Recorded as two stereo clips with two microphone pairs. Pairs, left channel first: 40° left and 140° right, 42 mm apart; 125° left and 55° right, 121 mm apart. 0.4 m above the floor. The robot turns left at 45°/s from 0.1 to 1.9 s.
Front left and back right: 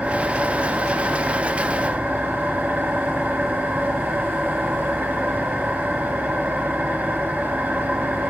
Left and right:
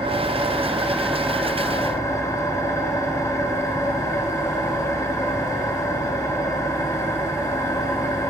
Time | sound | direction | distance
0.0 | an engine running | 95° right | 1.7 m